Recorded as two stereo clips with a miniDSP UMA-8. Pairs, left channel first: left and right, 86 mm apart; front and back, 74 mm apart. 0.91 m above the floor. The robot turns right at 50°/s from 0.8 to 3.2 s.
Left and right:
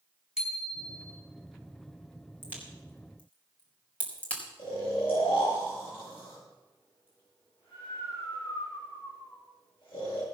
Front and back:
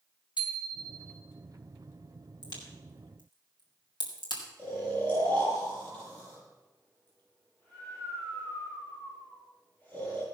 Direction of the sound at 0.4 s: 10° right.